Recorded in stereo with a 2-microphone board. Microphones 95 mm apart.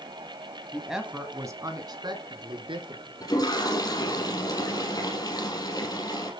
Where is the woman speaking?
5° left (ahead or behind), 1.3 m; by 3.1 s 65° right (ahead or behind), 3 m.